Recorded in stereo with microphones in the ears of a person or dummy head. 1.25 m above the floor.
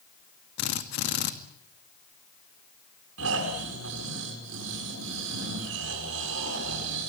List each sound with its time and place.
0.6 s a drill: 55° left (ahead or behind), 2 m
3.2 s snoring: 70° right (ahead or behind), 8.5 m